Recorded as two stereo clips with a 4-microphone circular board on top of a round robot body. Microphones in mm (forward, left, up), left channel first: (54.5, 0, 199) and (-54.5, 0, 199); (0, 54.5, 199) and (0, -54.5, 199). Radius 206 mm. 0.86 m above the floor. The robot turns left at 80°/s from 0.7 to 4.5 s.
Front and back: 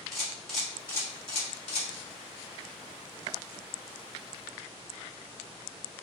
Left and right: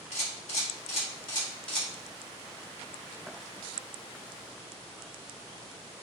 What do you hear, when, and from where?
0.1 s a camera shutter: 90° left, 2.0 m; by 1.9 s 5° right, 2.0 m